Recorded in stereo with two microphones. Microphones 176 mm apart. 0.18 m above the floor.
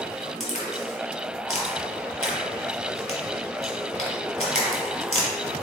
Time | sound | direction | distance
0.4 | a crack | 40° left (ahead or behind) | 1.9 m